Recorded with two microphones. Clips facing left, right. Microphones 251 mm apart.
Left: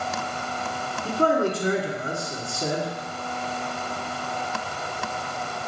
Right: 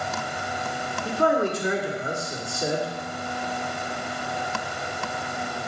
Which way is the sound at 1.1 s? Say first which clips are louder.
Left 1 dB; 35° left (ahead or behind).